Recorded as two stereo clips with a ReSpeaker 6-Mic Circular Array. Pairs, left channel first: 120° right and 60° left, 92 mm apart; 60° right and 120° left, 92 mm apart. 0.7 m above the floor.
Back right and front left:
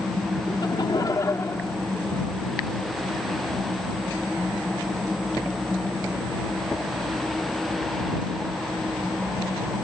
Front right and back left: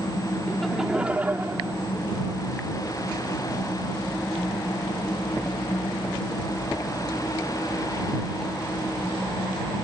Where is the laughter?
145° right; by 2.4 s 165° left.